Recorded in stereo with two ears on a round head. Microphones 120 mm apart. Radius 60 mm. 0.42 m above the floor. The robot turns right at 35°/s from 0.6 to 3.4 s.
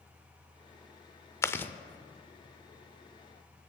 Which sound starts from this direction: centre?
Chewing, at 1.4 s.